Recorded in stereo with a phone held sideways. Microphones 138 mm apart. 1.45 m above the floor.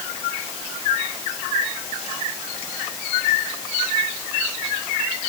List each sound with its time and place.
Only background noise.